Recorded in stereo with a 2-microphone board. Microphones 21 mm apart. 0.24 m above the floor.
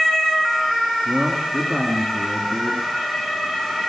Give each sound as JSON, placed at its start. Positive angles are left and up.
{"t": 1.1, "sound": "a man speaking", "side_deg": -50, "distance_m": 3.5}